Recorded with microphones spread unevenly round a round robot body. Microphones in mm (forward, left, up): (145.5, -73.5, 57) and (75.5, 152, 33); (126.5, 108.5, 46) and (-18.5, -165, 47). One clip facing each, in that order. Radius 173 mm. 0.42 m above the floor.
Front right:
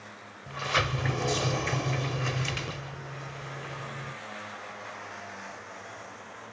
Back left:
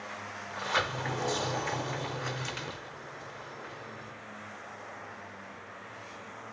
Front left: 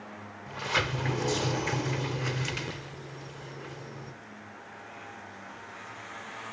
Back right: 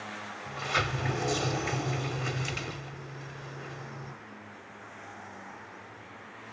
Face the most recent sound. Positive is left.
turn(degrees=-20)